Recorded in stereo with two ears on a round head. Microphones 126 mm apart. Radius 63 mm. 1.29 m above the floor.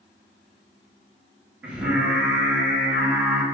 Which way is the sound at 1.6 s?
10° right (ahead or behind).